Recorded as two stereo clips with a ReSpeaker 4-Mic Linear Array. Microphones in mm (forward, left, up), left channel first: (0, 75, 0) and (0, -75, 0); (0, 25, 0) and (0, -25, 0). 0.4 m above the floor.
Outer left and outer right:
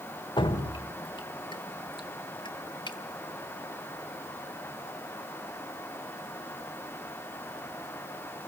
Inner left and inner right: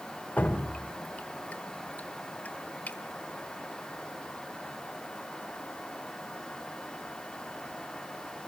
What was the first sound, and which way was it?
Dripping, 30° left (ahead or behind).